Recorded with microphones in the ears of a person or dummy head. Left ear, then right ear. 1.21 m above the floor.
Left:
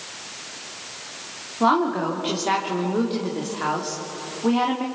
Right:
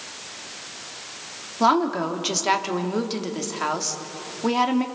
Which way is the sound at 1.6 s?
85° right.